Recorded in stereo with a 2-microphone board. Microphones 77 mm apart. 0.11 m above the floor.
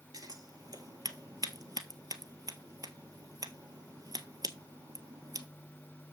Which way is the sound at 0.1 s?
60° right (ahead or behind).